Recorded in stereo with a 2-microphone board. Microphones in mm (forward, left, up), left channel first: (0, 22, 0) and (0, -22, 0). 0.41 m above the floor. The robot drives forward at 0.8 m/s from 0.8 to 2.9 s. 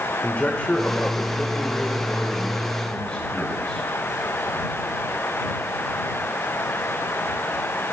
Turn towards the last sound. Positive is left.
turn(degrees=20)  # may be behind; listen again after turning